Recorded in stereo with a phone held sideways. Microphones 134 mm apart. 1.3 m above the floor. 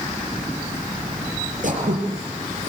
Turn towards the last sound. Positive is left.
turn(degrees=-65)  # may be behind; listen again after turning